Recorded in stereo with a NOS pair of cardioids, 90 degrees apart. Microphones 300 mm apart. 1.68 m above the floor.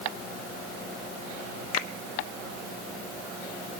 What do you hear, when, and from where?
1.7 s a finger snap: 55° left, 2.5 m